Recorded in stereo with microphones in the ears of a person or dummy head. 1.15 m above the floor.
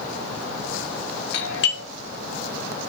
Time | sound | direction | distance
1.3 | a doorbell | 60° left (ahead or behind) | 2 m